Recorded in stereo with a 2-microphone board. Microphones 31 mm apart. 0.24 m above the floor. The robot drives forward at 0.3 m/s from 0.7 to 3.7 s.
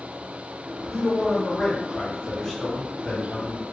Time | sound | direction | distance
0.9 | a man speaking | 15° left (ahead or behind) | 1.8 m